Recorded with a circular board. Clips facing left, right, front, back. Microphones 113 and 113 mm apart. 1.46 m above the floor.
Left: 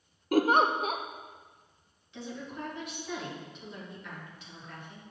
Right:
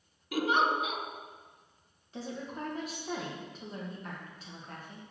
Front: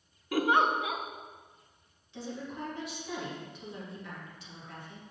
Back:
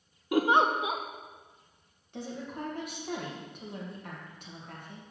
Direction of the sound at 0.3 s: 115° left.